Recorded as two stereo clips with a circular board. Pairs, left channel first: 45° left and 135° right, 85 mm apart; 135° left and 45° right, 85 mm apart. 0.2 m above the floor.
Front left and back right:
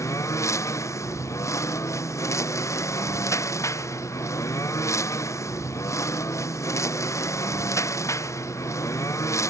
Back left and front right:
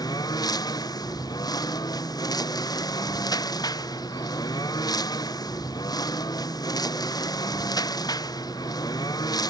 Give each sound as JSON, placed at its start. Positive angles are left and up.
{"t": 0.0, "sound": "a lawn mower", "azimuth_deg": 95}